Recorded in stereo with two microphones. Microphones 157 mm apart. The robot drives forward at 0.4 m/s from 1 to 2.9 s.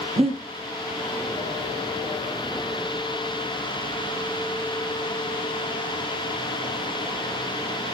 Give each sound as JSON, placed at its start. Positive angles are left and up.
{"t": 0.2, "sound": "breathing", "side_deg": -40, "distance_m": 1.1}